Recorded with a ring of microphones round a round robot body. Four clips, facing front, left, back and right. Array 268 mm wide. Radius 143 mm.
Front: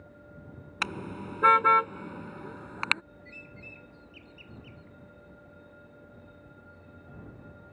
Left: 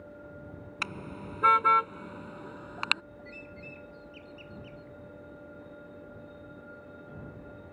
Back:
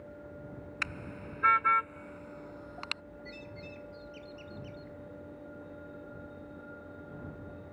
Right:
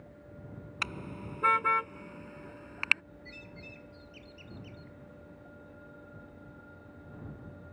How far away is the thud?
I don't hear a thud.